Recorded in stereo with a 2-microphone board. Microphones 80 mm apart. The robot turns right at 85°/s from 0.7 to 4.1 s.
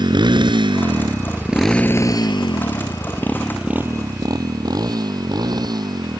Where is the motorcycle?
70° right (ahead or behind); by 6.2 s 60° right (ahead or behind).